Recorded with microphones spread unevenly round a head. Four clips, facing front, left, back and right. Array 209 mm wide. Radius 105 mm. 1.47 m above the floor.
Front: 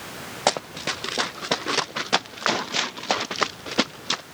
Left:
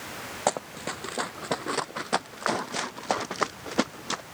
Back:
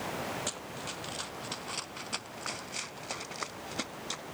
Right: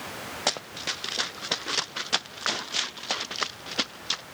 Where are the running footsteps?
20° left; by 4.2 s 35° left.